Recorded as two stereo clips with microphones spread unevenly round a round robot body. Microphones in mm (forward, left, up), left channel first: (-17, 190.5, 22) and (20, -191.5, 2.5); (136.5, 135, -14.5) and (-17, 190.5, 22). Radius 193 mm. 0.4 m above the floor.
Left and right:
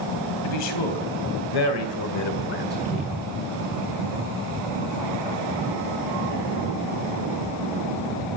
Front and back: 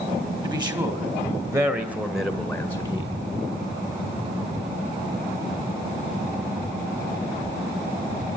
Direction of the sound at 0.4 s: 95° left.